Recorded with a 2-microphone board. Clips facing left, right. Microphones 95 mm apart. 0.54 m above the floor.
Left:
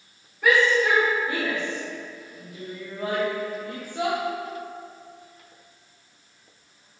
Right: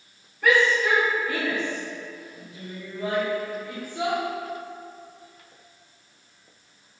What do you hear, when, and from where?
0.4 s a shout: 5° left (ahead or behind), 2 m; by 4.2 s 70° left (ahead or behind), 4 m